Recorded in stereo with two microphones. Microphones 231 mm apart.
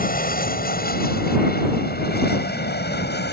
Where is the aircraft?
40° left (ahead or behind); by 3.3 s 45° left (ahead or behind).